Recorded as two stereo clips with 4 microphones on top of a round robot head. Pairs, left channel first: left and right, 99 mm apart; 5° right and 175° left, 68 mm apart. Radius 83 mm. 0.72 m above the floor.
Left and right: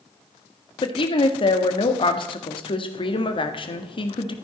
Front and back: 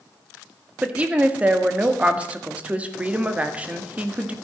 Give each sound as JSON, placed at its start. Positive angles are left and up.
{"t": 0.8, "sound": "a woman speaking", "azimuth_deg": 105, "distance_m": 1.7}